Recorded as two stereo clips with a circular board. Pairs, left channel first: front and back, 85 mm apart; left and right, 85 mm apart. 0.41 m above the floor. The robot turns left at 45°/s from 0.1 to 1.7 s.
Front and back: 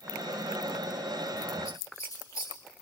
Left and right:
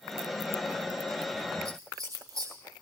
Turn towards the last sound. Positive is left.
turn(degrees=-45)